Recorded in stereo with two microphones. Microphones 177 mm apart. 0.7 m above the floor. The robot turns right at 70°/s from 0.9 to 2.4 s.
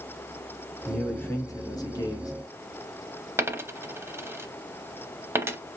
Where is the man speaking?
5° left (ahead or behind), 1.1 m; by 2.3 s 20° left (ahead or behind), 1.1 m.